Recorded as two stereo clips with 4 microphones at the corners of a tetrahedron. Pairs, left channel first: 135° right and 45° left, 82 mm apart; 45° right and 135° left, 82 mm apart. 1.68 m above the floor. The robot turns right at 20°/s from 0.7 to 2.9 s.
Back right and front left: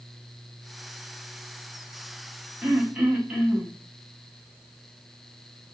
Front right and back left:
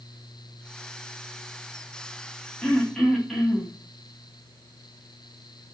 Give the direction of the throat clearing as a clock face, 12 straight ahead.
11 o'clock.